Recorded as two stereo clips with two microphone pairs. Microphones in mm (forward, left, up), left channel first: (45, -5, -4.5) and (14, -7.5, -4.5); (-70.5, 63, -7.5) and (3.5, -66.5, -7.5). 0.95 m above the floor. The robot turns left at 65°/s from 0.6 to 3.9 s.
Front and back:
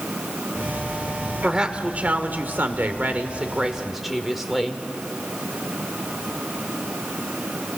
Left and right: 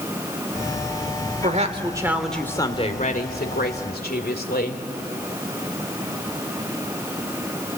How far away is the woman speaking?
About 2.5 m.